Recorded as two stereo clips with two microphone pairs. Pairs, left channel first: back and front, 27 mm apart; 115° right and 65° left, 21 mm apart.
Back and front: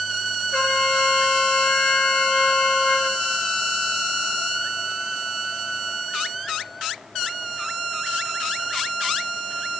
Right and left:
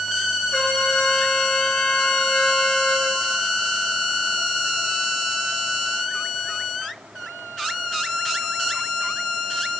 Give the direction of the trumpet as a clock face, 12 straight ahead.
5 o'clock.